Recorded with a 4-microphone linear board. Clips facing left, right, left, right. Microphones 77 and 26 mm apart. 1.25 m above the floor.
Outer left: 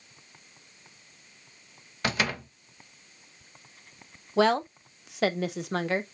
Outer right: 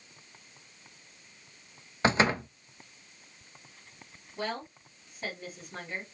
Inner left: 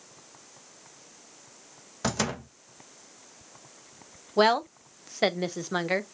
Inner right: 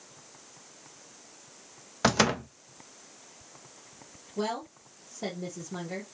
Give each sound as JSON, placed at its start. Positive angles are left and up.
{"t": 2.0, "sound": "a door slam", "side_deg": -30, "distance_m": 0.6}
{"t": 4.4, "sound": "a woman speaking", "side_deg": 85, "distance_m": 0.8}